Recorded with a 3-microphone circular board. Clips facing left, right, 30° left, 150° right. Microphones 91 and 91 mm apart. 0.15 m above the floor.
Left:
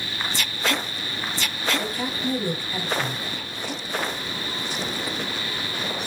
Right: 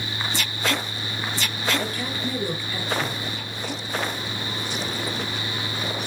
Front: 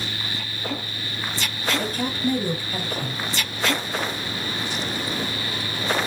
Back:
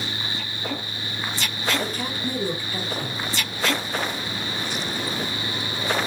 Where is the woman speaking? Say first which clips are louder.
Left 1 dB, front 3 dB; 30° left, 2.5 m.